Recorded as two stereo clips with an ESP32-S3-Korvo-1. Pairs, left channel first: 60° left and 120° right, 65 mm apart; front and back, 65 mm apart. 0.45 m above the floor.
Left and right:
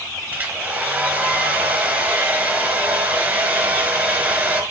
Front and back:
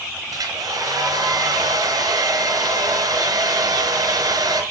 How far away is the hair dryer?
About 4 m.